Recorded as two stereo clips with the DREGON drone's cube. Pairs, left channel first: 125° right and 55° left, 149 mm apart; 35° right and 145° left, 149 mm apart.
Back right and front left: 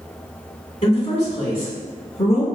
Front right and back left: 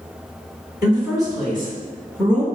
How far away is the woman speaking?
About 2.0 m.